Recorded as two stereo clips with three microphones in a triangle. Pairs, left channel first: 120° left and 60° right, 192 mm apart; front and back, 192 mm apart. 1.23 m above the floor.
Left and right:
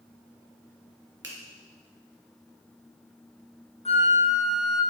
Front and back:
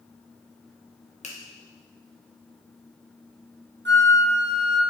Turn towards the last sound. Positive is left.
turn(degrees=180)